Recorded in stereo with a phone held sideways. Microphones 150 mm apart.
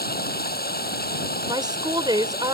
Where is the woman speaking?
30° right (ahead or behind).